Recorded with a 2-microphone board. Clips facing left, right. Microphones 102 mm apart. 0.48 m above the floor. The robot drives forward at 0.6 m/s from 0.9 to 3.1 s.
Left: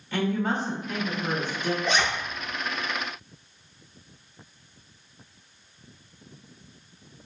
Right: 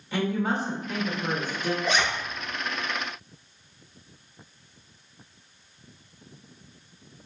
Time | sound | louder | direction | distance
0.1 | a woman speaking | even | 10° right (ahead or behind) | 1.8 m
1.8 | a zipper | even | centre (ahead or behind) | 0.8 m